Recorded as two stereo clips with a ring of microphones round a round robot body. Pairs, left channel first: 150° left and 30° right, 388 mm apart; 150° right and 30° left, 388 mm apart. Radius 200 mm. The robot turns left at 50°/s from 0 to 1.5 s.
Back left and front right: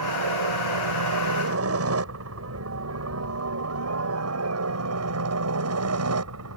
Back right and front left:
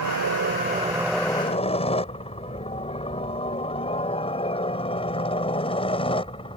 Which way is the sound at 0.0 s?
5° right.